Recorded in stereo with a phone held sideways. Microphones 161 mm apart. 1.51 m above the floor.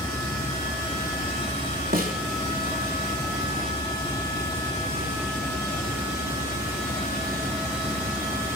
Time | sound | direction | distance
1.9 | a snare drum | 60° right (ahead or behind) | 3.5 m